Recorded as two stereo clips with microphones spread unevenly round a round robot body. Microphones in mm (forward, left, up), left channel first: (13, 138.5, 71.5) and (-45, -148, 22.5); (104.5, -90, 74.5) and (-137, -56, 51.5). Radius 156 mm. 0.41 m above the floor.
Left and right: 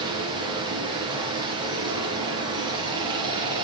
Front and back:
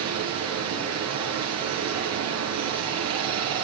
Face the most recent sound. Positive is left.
turn(degrees=-175)